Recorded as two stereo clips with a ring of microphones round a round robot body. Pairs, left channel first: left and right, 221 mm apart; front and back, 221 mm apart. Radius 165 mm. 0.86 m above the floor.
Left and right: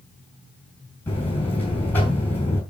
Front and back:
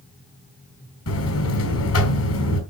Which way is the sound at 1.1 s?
5° left.